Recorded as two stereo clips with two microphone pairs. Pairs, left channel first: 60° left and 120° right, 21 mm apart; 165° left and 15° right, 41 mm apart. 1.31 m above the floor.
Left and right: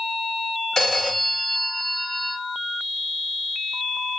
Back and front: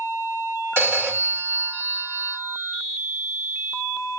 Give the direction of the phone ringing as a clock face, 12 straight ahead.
12 o'clock.